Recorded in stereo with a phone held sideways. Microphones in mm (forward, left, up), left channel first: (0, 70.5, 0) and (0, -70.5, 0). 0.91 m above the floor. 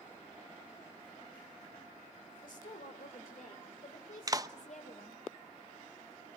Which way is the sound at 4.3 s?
25° right (ahead or behind).